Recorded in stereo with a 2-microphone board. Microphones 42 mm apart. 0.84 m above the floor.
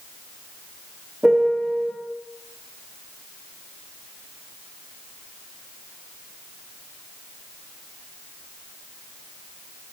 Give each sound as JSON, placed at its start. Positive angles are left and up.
{"t": 1.2, "sound": "a piano", "side_deg": -10, "distance_m": 1.5}